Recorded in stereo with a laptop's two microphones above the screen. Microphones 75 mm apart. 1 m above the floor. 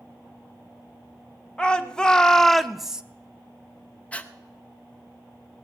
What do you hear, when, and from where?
1.6 s a shout: 15° left (ahead or behind), 1.8 m; by 3.0 s 10° right (ahead or behind), 0.6 m
4.1 s breathing: 20° left (ahead or behind), 0.6 m